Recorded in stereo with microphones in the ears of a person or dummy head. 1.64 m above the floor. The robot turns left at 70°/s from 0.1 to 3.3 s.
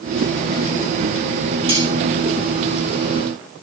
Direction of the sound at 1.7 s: 25° right (ahead or behind).